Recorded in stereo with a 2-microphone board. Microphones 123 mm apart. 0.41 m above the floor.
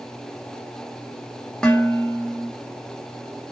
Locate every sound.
1.6 s dishes clattering: 5° left (ahead or behind), 0.7 m